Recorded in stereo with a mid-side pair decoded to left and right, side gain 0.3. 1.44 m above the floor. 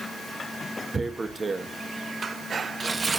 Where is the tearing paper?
40° right, 1.3 m.